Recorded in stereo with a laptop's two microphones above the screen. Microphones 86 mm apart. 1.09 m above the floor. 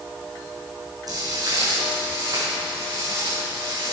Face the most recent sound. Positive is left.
turn(degrees=-50)  # may be behind; listen again after turning